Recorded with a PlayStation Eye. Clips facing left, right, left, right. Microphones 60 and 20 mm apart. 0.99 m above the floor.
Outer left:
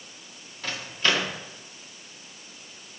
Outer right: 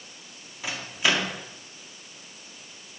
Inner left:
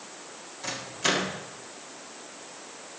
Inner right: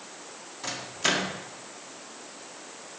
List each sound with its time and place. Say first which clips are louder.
0.6 s a microwave: even, even; 15° right (ahead or behind), 1.8 m